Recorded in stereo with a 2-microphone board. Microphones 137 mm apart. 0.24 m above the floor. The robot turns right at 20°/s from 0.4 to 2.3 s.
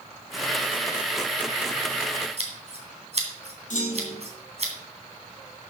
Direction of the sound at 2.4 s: 50° right (ahead or behind).